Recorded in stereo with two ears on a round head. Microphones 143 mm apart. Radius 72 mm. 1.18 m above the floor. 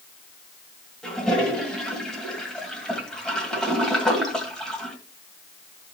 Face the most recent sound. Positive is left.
turn(degrees=5)  # may be behind; listen again after turning